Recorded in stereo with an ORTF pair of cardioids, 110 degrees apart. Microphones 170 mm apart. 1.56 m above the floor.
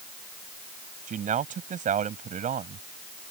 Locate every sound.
1.1 s a man speaking: 50° right